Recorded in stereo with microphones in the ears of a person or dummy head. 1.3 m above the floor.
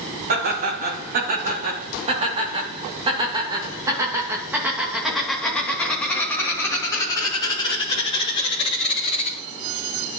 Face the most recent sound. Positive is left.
turn(degrees=35)  # may be behind; listen again after turning